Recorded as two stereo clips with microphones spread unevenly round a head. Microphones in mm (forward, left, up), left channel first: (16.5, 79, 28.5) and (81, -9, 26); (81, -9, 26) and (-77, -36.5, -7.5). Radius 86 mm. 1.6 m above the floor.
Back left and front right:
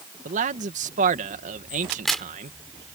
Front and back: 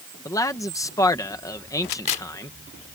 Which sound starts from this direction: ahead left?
A crack, at 1.9 s.